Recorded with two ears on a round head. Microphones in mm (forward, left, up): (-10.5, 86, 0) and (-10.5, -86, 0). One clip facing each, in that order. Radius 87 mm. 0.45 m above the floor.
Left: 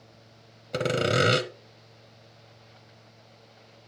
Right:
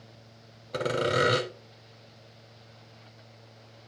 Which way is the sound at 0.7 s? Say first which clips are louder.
Left 2 dB; 30° left (ahead or behind).